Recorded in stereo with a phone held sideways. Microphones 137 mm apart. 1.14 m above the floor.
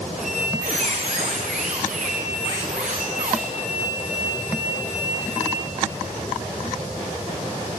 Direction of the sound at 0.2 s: 65° right (ahead or behind).